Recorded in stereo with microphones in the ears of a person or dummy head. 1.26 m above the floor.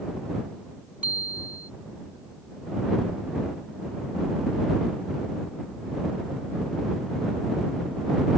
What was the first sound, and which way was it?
A bicycle bell, 10° right (ahead or behind).